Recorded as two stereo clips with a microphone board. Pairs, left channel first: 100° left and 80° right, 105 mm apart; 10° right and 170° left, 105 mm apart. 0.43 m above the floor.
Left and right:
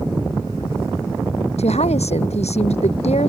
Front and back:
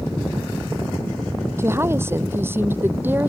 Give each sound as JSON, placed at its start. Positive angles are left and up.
{"t": 1.6, "sound": "a woman speaking", "azimuth_deg": 105}